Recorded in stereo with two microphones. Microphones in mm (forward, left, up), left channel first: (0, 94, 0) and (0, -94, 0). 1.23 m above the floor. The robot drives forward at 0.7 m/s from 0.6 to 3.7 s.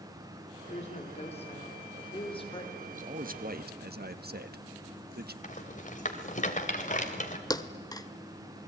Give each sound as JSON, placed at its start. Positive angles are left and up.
{"t": 0.7, "sound": "a woman speaking", "side_deg": 35, "distance_m": 4.0}
{"t": 2.9, "sound": "a man speaking", "side_deg": -40, "distance_m": 1.9}
{"t": 5.4, "sound": "a rattle", "side_deg": 40, "distance_m": 2.5}
{"t": 7.5, "sound": "a thud", "side_deg": 20, "distance_m": 1.4}